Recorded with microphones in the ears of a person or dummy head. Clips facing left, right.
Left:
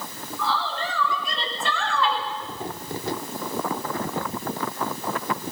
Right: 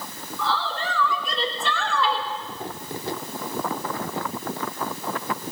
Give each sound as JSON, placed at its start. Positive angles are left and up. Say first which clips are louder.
{"t": 0.4, "sound": "a woman speaking", "louder": "even", "side_deg": -55, "distance_m": 3.0}